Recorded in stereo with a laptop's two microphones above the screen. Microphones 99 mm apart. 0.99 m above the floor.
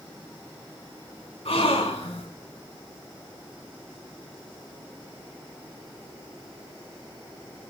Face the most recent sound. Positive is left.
turn(degrees=80)